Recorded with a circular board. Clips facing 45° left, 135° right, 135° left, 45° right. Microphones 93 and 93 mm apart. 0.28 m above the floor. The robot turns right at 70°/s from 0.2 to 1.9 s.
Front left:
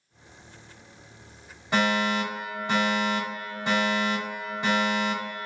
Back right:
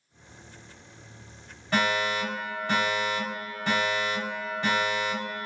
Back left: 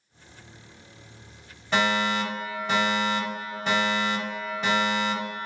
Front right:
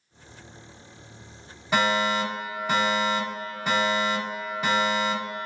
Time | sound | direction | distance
1.7 | a fire alarm | 15° left | 1.9 m